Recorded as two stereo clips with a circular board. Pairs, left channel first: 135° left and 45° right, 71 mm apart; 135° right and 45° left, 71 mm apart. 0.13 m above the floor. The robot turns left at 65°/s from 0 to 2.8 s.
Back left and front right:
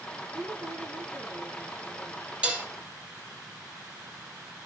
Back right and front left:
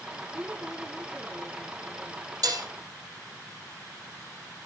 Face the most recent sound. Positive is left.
turn(degrees=5)